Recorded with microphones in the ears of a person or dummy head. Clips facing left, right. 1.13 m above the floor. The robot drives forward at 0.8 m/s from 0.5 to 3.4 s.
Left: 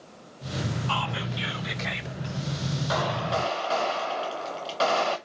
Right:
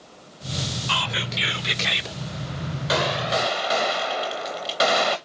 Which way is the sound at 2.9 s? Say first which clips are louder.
Right 5 dB; 45° right (ahead or behind).